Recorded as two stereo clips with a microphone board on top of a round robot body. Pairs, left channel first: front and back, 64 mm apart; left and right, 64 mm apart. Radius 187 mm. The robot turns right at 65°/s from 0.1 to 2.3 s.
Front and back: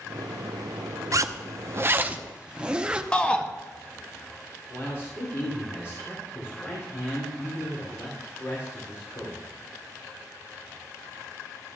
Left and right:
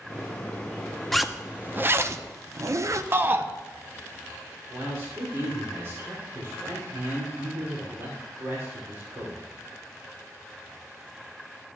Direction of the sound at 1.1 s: 175° left.